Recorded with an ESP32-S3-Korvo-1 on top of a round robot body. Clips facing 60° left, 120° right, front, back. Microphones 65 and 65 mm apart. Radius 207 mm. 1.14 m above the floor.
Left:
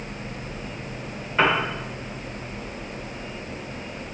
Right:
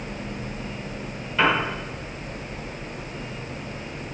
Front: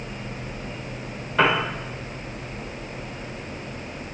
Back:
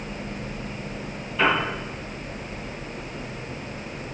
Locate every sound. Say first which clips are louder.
1.4 s a piano: even, front 2 dB; straight ahead, 1.1 m